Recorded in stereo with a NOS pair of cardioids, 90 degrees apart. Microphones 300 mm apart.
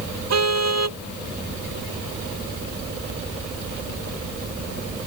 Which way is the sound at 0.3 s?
60° right.